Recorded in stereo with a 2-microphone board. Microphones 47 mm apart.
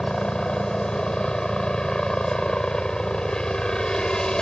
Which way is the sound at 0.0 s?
15° left (ahead or behind).